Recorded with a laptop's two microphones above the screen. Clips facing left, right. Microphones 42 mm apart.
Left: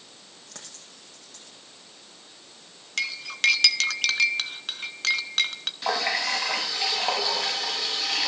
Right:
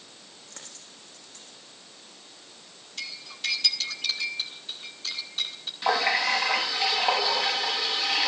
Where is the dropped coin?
85° left, 7 m.